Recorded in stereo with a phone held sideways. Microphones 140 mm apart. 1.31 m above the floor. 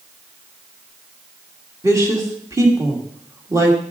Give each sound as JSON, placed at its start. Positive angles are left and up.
{"t": 1.8, "sound": "a woman speaking", "side_deg": -20, "distance_m": 1.8}